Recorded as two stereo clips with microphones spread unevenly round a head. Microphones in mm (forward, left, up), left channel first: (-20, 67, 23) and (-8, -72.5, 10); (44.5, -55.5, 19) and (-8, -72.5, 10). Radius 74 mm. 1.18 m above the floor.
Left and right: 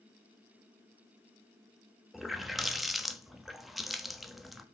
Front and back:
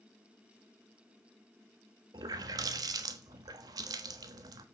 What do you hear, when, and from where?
2.1 s a running tap: 175° right, 1.0 m